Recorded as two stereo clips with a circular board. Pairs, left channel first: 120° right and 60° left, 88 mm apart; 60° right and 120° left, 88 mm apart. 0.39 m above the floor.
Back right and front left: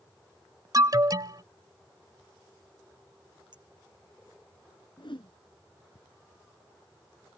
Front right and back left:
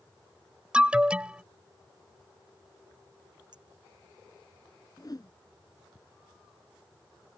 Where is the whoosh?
100° right.